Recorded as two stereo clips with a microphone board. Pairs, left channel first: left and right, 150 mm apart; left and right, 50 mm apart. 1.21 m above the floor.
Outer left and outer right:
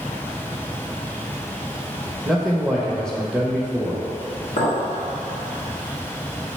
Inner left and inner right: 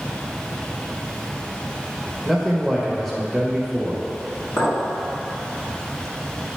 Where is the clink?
80° left, 1.5 m.